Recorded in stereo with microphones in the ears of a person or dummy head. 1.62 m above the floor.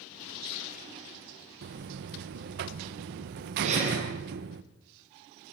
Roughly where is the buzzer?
Right.